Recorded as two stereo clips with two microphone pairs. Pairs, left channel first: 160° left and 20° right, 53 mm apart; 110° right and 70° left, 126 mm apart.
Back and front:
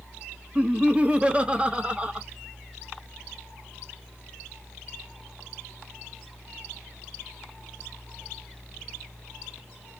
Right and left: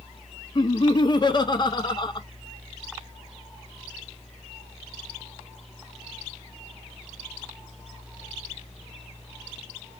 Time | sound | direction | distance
0.6 | laughter | 75° right | 0.7 m